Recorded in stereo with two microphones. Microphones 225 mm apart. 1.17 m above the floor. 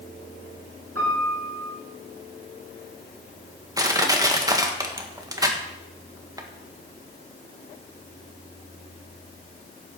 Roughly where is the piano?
Right.